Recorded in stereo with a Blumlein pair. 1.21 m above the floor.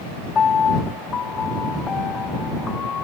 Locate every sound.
0.3 s a piano: 20° left